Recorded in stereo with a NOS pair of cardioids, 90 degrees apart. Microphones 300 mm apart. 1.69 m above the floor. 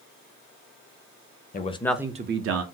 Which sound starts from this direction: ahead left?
A man speaking, at 1.5 s.